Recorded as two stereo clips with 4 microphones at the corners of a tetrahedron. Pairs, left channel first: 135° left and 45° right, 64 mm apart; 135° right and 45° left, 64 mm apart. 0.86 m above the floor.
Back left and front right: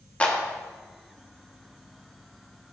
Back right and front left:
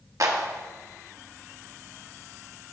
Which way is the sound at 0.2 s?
70° left.